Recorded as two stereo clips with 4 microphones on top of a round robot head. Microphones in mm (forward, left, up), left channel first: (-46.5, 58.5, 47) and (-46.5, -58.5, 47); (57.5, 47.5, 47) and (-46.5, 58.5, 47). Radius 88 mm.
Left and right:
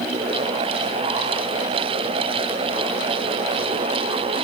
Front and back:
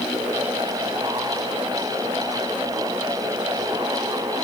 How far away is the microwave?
I don't hear a microwave.